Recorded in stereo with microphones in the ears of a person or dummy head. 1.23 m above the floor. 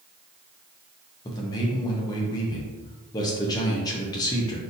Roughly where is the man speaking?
Left.